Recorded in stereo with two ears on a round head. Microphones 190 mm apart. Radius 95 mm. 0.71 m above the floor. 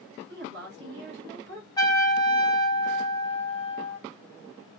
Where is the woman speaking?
50° right (ahead or behind), 1.5 m.